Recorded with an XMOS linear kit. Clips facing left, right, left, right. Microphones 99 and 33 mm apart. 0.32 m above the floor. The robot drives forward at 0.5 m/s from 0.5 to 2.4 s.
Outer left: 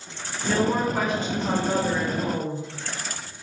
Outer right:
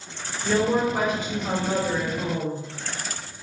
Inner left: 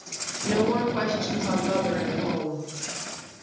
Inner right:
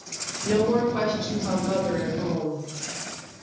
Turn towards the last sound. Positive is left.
turn(degrees=-15)  # may be behind; listen again after turning